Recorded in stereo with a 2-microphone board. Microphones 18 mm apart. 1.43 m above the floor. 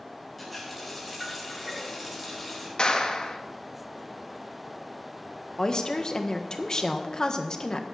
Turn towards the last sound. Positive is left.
turn(degrees=45)  # may be behind; listen again after turning